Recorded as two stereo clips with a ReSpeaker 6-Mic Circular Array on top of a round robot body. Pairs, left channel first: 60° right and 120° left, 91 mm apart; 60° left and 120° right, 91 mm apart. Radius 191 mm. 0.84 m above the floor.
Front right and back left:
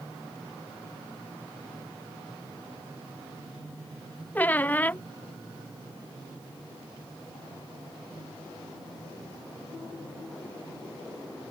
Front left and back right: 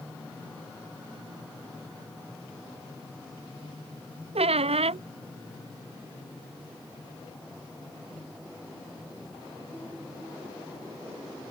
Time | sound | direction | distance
4.3 | a squeak | 135° right | ?